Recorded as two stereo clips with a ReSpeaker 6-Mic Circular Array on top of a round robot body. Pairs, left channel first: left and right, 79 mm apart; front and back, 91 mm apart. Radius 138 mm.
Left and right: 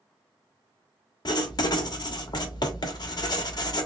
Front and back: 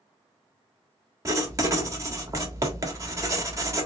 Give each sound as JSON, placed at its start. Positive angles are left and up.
{"t": 1.2, "sound": "writing", "azimuth_deg": 120, "distance_m": 1.3}